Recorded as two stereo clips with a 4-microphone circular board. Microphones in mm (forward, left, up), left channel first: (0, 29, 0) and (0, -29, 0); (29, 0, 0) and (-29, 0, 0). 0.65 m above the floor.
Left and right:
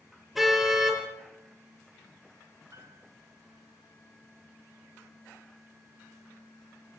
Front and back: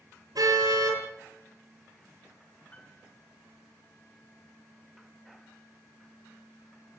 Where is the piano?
65° right, 4.5 m.